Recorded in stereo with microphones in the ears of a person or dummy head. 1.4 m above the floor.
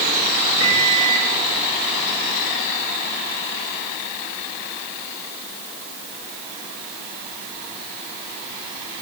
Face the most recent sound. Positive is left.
turn(degrees=-80)